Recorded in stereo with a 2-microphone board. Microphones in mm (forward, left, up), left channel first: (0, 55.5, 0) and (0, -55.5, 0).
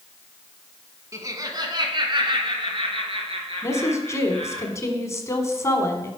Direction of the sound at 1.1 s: 25° right (ahead or behind).